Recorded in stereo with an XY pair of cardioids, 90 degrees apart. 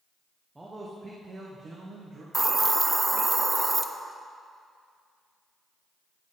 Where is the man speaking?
20° right, 1.3 m; by 2.2 s 65° right, 1.6 m.